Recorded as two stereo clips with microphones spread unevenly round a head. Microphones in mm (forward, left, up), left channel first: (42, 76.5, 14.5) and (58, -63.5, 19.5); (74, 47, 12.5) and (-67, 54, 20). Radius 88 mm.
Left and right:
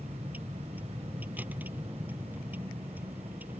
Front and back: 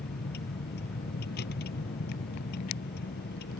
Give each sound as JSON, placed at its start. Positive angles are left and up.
{"t": 0.0, "sound": "a vehicle", "azimuth_deg": -5}